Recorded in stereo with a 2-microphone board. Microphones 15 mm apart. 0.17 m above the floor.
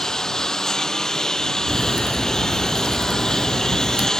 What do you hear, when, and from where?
0.0 s a lawn mower: 40° left (ahead or behind)
1.7 s a crack: 40° right (ahead or behind)